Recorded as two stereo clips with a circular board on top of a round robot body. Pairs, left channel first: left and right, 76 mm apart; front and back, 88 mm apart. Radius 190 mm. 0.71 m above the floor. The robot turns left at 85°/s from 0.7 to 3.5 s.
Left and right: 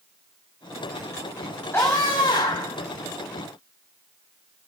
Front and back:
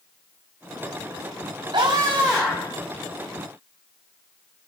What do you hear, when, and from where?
1.7 s a scream: 150° left, 3 m; by 2.8 s 60° left, 3 m